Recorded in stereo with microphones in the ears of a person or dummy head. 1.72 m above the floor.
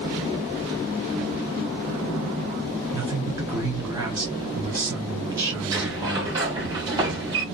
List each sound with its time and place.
2.9 s a man speaking: 15° right (ahead or behind), 0.7 m
5.7 s a sliding door: 20° right (ahead or behind), 1.2 m